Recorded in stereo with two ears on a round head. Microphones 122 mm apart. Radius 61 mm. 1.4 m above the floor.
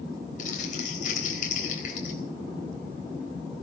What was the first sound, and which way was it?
Crumpling, 60° left (ahead or behind).